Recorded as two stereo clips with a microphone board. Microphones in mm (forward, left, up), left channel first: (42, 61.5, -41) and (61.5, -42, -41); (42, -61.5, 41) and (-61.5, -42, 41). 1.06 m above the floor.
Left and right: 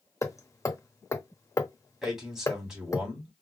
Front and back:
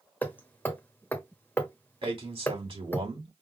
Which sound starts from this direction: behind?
A man speaking, at 2.0 s.